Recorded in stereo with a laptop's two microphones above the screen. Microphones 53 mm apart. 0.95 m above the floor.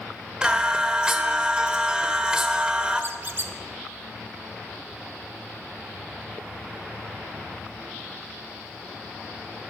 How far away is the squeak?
About 0.9 m.